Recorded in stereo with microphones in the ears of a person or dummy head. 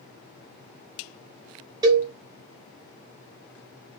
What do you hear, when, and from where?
1.8 s a cowbell: 25° right (ahead or behind), 0.9 m